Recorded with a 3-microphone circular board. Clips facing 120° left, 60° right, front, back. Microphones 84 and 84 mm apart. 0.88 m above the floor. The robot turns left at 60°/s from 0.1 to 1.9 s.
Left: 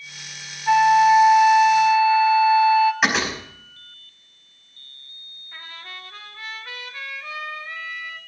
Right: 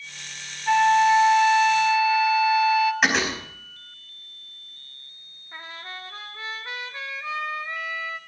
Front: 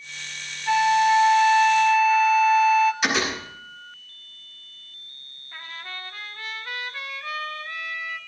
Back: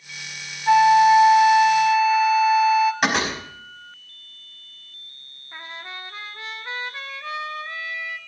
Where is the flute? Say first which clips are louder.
Left 3 dB, back 5 dB; 175° right, 0.9 m; by 2.9 s 110° left, 0.9 m.